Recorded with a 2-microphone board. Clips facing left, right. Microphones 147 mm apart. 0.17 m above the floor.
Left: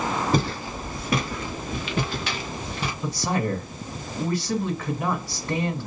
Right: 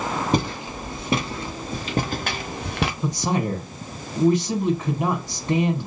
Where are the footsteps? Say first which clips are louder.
Right 1 dB; 20° right (ahead or behind), 2.5 m; by 2.9 s 80° right, 1.0 m.